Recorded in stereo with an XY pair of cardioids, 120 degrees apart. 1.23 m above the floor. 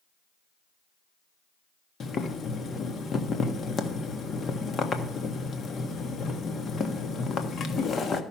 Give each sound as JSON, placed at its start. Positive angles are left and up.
{"t": 2.0, "sound": "boiling", "azimuth_deg": 40, "distance_m": 1.3}